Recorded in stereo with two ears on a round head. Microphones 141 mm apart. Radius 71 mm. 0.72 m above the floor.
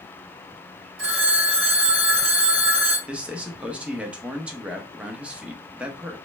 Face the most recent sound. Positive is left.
turn(degrees=-10)  # may be behind; listen again after turning